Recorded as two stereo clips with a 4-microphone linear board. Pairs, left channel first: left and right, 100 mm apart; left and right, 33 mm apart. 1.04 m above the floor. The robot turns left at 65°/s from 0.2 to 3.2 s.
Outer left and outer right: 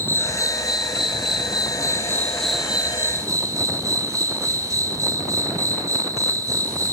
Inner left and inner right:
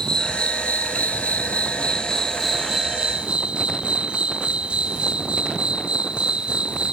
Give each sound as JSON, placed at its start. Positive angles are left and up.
{"t": 0.0, "sound": "an insect", "azimuth_deg": 150, "distance_m": 0.7}